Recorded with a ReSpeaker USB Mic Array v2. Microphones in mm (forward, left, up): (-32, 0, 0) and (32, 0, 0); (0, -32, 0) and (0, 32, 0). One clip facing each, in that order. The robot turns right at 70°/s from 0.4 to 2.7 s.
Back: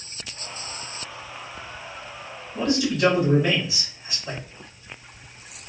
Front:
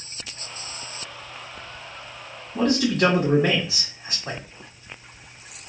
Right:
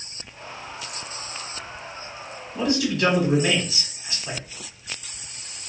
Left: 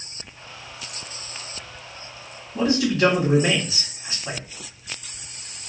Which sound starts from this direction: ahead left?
A man speaking, at 2.5 s.